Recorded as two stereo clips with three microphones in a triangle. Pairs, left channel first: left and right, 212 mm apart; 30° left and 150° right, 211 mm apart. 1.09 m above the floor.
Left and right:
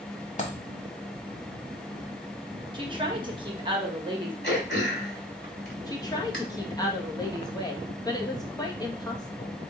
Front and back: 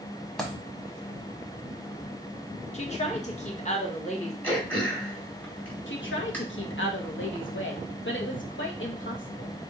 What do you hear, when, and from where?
0.4 s a dropped coin: 115° left, 1.2 m
2.7 s a woman speaking: 25° right, 1.1 m
4.4 s throat clearing: 110° left, 1.9 m
5.9 s a woman speaking: 20° left, 1.0 m